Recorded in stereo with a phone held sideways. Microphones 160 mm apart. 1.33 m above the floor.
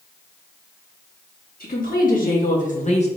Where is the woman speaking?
65° left (ahead or behind), 3 m; by 3.1 s 45° left (ahead or behind), 1.5 m.